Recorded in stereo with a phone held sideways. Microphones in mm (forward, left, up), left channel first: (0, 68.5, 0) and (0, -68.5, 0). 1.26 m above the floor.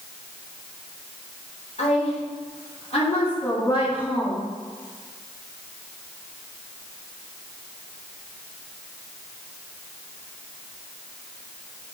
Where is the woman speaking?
60° left (ahead or behind), 4 m; by 4.5 s 30° left (ahead or behind), 2 m.